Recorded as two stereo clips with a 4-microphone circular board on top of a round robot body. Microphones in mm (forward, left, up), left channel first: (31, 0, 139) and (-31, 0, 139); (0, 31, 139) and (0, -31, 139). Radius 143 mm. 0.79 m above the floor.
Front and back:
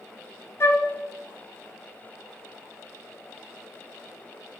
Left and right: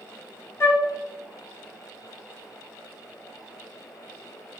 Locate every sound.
0.6 s a flute: 50° left, 1.5 m